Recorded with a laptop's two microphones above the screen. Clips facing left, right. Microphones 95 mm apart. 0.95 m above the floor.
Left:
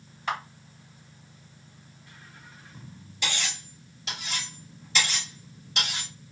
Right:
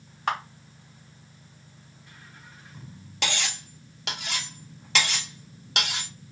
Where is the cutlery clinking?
75° right (ahead or behind), 0.7 m.